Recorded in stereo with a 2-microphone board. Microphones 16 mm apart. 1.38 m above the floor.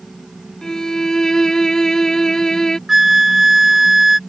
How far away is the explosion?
I don't hear an explosion.